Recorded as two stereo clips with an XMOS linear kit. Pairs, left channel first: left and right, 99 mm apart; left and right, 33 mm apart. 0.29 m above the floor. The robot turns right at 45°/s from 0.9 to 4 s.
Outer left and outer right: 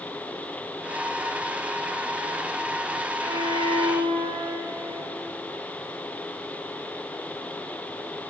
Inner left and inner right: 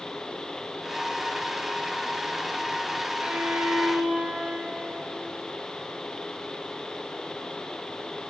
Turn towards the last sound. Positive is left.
turn(degrees=-105)